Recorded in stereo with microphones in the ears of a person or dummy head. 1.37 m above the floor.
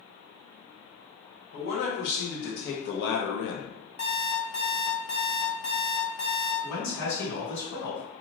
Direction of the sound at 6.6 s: 60° left (ahead or behind).